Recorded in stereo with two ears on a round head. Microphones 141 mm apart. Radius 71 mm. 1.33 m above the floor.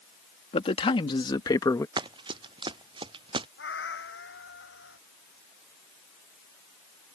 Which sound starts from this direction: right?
Running footsteps, at 2.0 s.